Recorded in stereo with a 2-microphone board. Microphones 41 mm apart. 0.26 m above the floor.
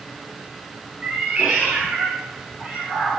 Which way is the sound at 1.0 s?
20° right (ahead or behind).